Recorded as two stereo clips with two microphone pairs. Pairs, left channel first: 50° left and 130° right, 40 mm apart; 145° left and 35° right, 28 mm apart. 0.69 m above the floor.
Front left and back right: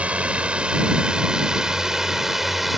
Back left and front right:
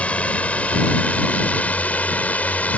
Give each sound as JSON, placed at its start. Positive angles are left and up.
{"t": 0.0, "sound": "a drone", "azimuth_deg": 175}